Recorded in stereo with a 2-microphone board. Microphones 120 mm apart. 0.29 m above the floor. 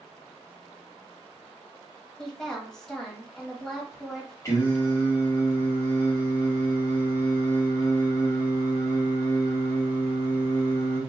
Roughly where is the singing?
Left.